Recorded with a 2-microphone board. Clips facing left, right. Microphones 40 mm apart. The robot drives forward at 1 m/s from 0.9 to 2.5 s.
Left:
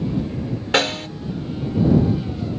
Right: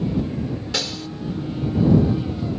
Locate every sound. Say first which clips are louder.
0.7 s a snare drum: left 12 dB; 50° left (ahead or behind)